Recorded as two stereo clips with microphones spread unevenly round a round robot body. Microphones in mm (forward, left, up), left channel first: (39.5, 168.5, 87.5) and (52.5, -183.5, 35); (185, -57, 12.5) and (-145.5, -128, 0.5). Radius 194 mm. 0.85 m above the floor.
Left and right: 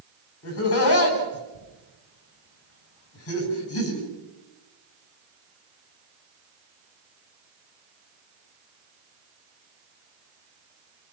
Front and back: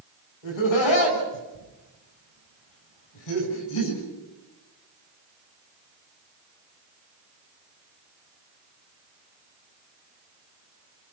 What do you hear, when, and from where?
0.4 s laughter: 40° left, 7.5 m